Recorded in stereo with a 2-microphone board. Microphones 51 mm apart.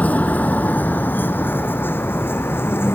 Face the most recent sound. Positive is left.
turn(degrees=50)  # may be behind; listen again after turning